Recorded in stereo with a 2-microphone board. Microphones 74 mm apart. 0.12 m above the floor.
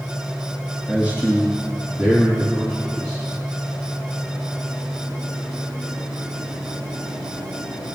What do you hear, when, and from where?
0.9 s a man speaking: 15° right (ahead or behind), 2.0 m; by 3.2 s 40° right (ahead or behind), 3.5 m